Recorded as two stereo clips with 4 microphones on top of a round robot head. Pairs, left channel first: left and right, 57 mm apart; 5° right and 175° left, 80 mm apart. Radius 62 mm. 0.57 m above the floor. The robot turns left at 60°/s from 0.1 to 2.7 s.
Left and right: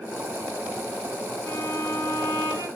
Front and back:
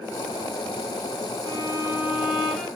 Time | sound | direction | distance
1.4 | a violin | 145° left | 4.5 m